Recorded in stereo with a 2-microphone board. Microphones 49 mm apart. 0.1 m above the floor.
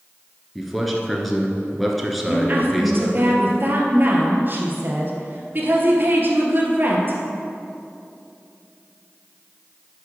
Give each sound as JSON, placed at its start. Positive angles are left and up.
{"t": 0.6, "sound": "a man speaking", "side_deg": 0, "distance_m": 1.3}
{"t": 2.3, "sound": "a woman speaking", "side_deg": -40, "distance_m": 1.8}